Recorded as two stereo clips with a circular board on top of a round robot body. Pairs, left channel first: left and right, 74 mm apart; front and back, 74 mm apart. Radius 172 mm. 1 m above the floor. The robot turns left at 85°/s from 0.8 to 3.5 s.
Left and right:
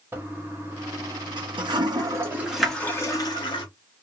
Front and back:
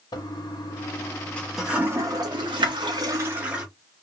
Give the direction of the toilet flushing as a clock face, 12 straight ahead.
1 o'clock.